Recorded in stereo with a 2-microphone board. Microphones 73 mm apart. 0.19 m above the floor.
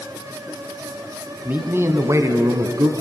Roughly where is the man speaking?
Right.